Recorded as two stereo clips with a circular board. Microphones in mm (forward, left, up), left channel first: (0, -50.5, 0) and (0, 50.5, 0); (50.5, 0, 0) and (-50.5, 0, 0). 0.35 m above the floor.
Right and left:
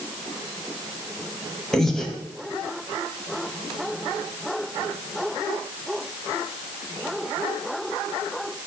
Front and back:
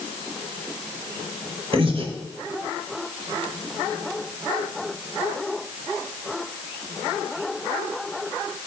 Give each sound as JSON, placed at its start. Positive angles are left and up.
{"t": 1.7, "sound": "breathing", "azimuth_deg": -175, "distance_m": 1.0}